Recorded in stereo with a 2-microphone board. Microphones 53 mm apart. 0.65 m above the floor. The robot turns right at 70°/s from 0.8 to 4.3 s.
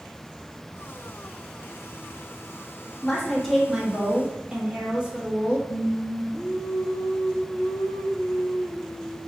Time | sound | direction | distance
3.0 | a woman speaking | 15° left (ahead or behind) | 0.8 m
5.7 | singing | 65° left (ahead or behind) | 0.6 m